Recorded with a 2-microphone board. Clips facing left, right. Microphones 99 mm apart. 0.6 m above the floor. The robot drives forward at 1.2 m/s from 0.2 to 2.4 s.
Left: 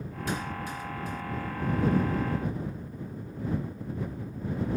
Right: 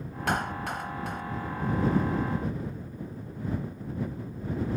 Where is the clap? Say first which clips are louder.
Right 5 dB; 70° right (ahead or behind); by 1.2 s 75° right (ahead or behind).